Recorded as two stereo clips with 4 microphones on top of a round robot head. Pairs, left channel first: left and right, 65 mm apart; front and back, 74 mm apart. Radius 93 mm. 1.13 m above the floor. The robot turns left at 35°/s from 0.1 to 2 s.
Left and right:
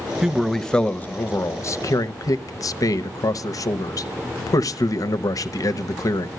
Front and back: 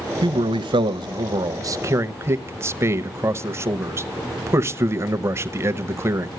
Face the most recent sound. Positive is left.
turn(degrees=125)